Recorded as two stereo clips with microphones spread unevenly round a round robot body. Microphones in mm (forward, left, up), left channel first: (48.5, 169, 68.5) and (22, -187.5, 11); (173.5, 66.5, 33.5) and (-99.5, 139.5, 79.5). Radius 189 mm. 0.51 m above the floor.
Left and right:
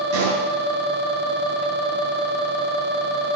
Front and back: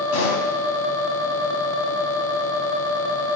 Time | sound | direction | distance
0.1 | a pop | 50° right | 4 m